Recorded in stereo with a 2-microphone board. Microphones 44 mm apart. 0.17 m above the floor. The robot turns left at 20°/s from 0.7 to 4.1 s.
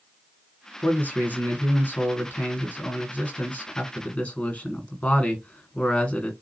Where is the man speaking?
115° left, 1.9 m; by 6.3 s 50° left, 1.9 m.